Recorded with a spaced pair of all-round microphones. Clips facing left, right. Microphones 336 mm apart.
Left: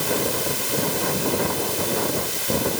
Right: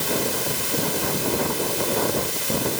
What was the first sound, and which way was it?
Only background noise.